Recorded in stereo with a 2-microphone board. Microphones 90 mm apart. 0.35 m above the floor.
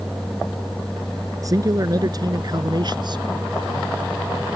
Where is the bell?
I don't hear a bell.